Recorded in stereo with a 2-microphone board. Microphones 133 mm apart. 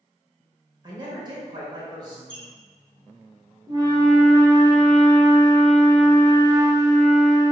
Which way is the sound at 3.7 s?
30° right (ahead or behind).